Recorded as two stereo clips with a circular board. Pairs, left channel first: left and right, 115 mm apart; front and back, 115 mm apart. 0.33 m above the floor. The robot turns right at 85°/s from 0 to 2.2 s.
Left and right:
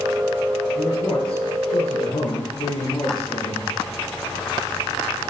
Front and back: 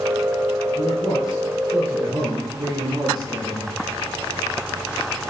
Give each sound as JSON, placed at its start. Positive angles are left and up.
{"t": 0.8, "sound": "a man speaking", "azimuth_deg": 10, "distance_m": 8.0}